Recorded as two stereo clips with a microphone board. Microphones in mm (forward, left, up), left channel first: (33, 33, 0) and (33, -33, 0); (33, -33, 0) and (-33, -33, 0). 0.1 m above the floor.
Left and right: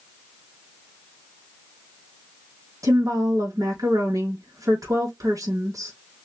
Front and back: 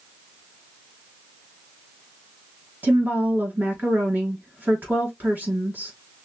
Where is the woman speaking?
115° right, 4 m.